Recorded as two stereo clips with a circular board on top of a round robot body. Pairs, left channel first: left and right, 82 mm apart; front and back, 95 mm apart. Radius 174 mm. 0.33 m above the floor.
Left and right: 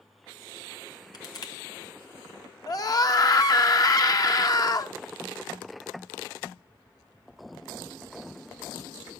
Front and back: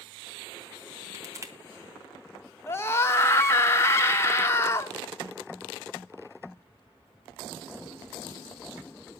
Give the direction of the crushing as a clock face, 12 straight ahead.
8 o'clock.